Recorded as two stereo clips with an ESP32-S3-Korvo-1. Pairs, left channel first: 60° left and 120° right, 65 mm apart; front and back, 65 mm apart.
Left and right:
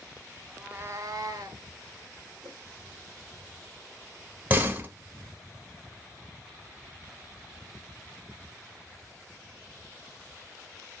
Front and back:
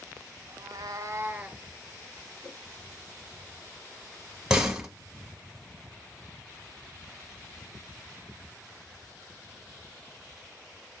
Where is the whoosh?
75° right, 0.7 m.